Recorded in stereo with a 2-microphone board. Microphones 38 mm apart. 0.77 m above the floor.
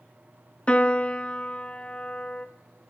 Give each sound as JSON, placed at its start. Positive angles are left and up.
{"t": 0.7, "sound": "a piano", "side_deg": 30, "distance_m": 0.7}